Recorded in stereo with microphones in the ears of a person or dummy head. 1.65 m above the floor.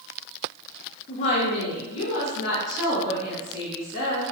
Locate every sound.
1.1 s a woman speaking: 35° left (ahead or behind), 0.6 m; by 4.2 s 50° left (ahead or behind), 3 m